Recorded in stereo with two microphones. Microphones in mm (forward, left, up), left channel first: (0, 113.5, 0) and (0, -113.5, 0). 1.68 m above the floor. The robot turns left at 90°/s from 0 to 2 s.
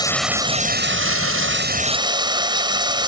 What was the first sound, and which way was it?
Running water, 20° left.